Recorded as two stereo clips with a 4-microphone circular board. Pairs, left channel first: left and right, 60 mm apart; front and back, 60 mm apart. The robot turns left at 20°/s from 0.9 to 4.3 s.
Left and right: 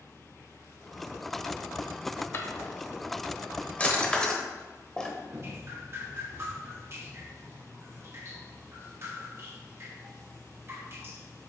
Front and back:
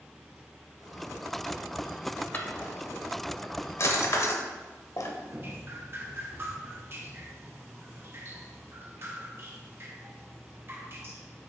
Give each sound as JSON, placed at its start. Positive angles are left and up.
{"t": 2.3, "sound": "a drawer", "azimuth_deg": 55, "distance_m": 1.1}
{"t": 5.3, "sound": "dripping", "azimuth_deg": -135, "distance_m": 1.2}